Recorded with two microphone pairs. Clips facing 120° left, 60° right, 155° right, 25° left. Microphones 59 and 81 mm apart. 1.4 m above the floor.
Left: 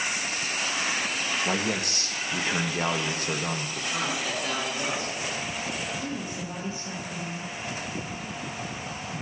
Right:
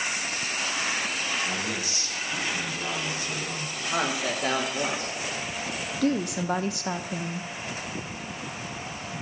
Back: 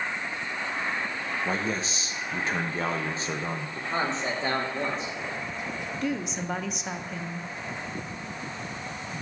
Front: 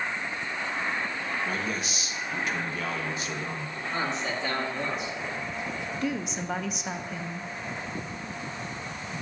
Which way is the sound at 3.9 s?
100° right.